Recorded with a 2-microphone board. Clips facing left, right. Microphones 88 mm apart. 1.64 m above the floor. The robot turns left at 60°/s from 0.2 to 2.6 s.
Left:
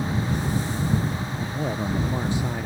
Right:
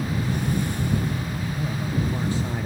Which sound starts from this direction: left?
A man speaking, at 1.4 s.